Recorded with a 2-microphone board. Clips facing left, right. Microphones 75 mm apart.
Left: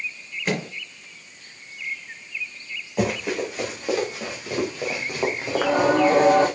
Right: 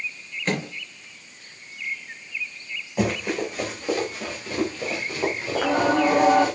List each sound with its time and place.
0.5 s a microwave: 5° left (ahead or behind), 4 m
3.0 s running footsteps: centre (ahead or behind), 6 m; by 6.5 s 40° left (ahead or behind), 3.5 m
5.5 s singing: 5° left (ahead or behind), 5 m